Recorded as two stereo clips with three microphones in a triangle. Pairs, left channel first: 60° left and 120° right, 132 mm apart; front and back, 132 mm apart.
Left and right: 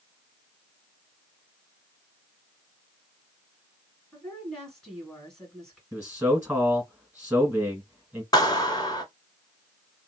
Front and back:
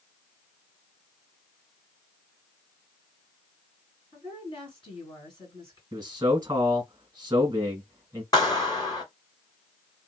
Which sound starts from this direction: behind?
A man speaking, at 5.9 s.